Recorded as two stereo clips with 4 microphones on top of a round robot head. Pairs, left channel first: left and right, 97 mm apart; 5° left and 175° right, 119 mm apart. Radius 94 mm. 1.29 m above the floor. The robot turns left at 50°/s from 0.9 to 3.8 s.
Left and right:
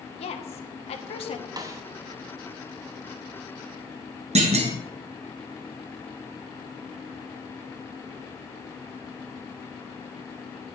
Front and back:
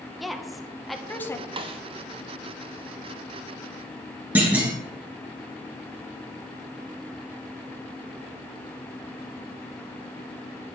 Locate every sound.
0.2 s a woman speaking: 95° left, 1.3 m; by 1.5 s 65° left, 1.3 m
1.6 s a snare drum: 135° right, 0.8 m; by 1.8 s 150° right, 0.8 m
4.3 s a clunk: 95° right, 1.4 m